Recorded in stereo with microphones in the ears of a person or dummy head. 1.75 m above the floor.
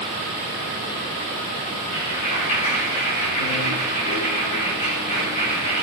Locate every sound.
1.9 s a clap: 50° left (ahead or behind), 6 m